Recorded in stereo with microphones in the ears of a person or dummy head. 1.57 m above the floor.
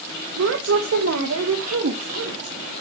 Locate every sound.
0.4 s a woman speaking: 70° right (ahead or behind), 1.5 m; by 2.5 s 75° right (ahead or behind), 3 m